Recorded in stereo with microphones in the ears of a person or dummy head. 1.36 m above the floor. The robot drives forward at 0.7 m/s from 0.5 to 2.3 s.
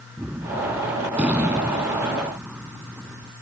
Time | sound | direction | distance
0.2 | a gunshot | centre (ahead or behind) | ?